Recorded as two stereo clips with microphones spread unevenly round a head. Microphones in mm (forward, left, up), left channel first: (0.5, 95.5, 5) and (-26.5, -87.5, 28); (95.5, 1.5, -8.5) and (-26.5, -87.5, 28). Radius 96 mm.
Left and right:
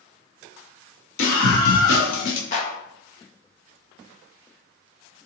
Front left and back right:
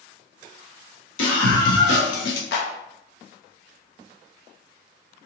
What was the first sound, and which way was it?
A scream, 55° left.